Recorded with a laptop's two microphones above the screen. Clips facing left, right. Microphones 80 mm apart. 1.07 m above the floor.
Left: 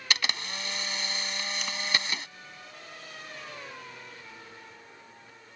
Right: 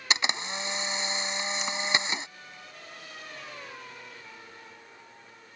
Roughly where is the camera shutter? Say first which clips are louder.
Right 3 dB; right.